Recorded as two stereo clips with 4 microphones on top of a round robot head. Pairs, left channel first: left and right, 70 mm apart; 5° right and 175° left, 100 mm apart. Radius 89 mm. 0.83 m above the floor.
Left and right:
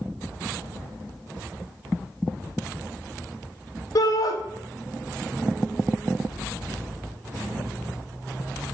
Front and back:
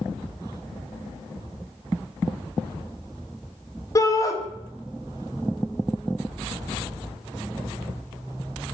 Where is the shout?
55° left, 1.9 m.